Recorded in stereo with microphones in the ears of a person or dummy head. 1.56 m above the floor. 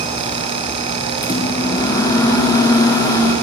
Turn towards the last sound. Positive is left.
turn(degrees=25)  # may be behind; listen again after turning